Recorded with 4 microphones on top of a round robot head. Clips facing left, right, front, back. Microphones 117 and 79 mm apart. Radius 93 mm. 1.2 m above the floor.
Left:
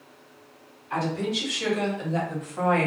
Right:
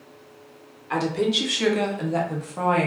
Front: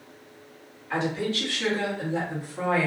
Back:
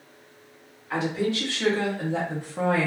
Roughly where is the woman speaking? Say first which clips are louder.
Right 4 dB, back 1 dB; right.